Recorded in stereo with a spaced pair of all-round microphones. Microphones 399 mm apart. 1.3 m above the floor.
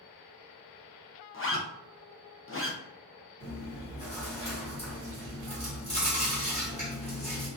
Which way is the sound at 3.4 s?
15° left (ahead or behind).